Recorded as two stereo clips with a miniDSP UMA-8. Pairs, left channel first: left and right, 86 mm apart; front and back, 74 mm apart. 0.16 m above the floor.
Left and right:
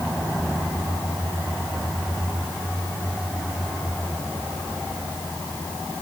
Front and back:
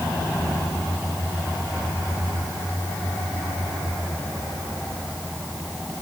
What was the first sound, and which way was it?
Only background noise.